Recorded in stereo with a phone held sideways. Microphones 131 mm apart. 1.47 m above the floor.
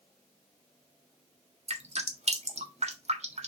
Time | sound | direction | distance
1.7 | dripping | 55° right (ahead or behind) | 1.5 m